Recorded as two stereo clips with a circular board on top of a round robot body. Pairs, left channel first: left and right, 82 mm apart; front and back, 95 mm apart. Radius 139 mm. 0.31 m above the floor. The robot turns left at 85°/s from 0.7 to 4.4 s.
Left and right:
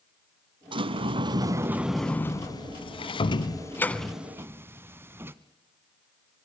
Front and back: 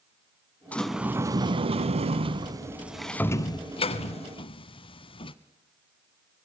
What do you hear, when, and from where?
0.7 s a sliding door: 75° right, 0.8 m; by 5.3 s 30° right, 0.8 m